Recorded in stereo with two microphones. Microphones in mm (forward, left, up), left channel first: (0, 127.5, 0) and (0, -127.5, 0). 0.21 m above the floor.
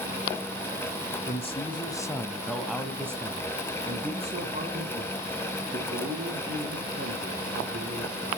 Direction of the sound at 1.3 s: 25° left (ahead or behind).